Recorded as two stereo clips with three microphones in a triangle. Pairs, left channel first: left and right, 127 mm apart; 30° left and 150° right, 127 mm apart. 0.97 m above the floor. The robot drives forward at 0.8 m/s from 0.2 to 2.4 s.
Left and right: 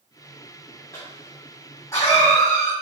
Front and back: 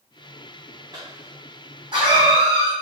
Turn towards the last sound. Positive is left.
turn(degrees=160)